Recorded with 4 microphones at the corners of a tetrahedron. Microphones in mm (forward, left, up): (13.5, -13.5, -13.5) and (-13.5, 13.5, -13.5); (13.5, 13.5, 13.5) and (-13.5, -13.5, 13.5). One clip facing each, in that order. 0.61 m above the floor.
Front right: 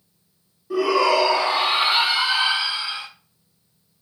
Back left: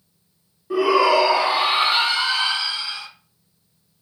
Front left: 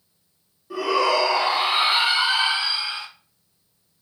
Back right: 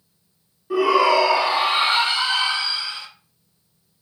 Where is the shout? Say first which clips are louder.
Back left 2 dB, back right 4 dB; 170° left, 1.0 m; by 3.1 s 5° left, 1.1 m.